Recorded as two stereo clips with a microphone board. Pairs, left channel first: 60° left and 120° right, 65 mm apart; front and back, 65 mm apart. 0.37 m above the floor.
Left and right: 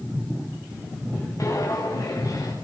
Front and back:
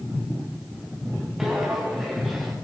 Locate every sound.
1.4 s footsteps: 95° left, 8.5 m; by 2.5 s 90° left, 9 m